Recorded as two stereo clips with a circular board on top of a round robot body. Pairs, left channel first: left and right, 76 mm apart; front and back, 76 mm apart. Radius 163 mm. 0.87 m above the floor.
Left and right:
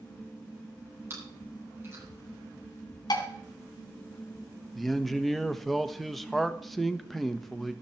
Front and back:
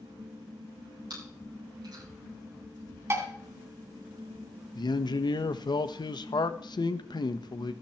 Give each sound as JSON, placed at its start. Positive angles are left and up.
{"t": 1.1, "sound": "chewing", "azimuth_deg": -145, "distance_m": 8.0}
{"t": 3.1, "sound": "dishes clattering", "azimuth_deg": 125, "distance_m": 3.0}
{"t": 4.8, "sound": "a man speaking", "azimuth_deg": 0, "distance_m": 1.4}